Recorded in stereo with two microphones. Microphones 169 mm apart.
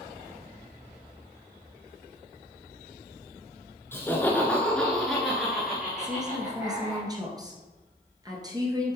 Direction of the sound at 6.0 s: 25° right (ahead or behind).